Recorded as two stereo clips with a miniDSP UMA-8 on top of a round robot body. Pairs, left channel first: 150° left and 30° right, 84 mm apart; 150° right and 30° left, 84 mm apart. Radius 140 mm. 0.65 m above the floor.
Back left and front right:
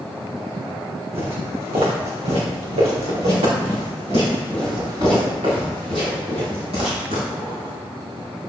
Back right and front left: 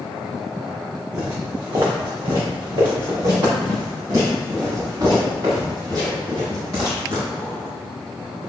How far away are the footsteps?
About 2.5 m.